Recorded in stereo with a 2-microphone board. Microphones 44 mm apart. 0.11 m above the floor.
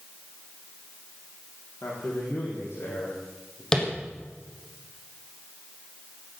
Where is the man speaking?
70° left (ahead or behind), 5.5 m; by 3.6 s 65° left (ahead or behind), 6 m.